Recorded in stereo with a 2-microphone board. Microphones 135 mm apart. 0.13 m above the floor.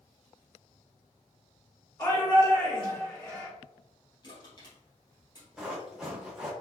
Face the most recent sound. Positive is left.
turn(degrees=-5)  # may be behind; listen again after turning